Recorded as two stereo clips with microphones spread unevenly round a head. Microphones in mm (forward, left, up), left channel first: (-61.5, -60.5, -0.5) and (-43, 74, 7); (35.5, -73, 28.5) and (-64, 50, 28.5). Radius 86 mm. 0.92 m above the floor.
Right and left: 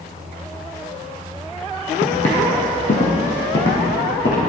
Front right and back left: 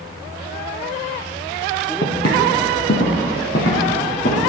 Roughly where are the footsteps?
Ahead right.